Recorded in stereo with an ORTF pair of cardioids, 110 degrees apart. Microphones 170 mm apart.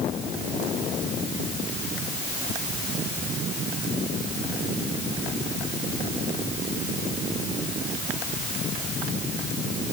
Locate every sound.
Only background noise.